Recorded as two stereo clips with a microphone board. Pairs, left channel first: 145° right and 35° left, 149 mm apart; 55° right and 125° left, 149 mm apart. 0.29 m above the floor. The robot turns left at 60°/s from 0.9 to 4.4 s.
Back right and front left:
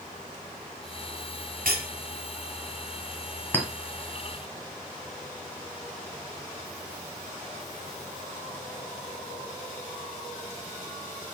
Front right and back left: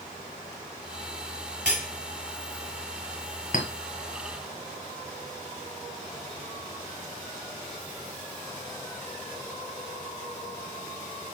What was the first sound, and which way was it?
Cutlery clinking, 45° left.